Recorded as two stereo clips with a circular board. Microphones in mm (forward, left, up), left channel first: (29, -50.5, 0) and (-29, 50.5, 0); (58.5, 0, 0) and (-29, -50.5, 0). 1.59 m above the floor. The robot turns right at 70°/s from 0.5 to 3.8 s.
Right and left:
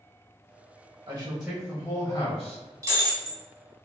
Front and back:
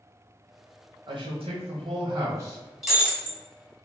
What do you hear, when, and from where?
1.1 s a man speaking: straight behind, 1.6 m; by 2.6 s 70° right, 1.6 m
2.8 s breaking glass: 115° left, 1.4 m; by 3.4 s 155° left, 1.4 m